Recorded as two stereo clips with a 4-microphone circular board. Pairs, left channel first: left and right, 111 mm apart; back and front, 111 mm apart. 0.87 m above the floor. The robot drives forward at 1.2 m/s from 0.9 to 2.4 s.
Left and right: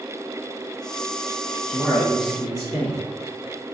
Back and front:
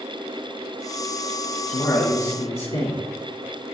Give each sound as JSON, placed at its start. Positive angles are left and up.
{"t": 1.7, "sound": "a man speaking", "azimuth_deg": 180, "distance_m": 1.3}